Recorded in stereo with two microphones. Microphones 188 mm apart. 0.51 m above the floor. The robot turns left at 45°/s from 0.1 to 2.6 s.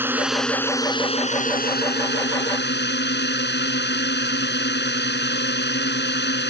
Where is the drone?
170° right; by 6.5 s 80° left.